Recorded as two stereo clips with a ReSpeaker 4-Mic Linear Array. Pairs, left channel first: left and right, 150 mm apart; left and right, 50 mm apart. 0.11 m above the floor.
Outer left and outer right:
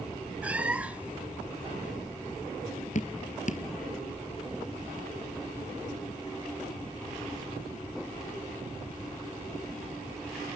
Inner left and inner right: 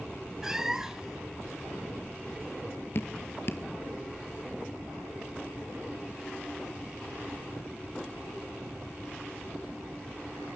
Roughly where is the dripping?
Left.